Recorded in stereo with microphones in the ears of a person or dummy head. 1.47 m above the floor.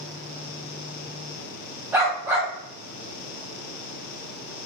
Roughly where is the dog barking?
Centre.